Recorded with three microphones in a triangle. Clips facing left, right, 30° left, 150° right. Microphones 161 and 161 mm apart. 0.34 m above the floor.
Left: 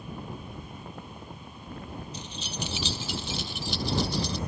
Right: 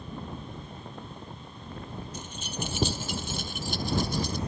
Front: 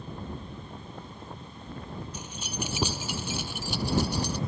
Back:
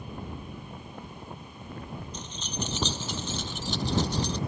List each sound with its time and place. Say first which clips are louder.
2.1 s keys jangling: right 1 dB, back 2 dB; 50° right